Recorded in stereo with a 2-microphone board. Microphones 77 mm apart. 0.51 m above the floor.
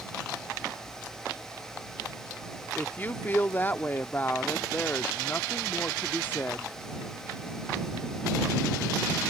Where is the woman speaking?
25° left (ahead or behind).